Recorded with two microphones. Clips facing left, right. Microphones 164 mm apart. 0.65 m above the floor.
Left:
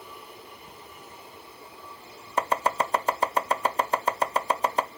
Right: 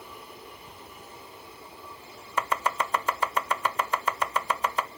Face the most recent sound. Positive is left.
turn(degrees=35)  # may be behind; listen again after turning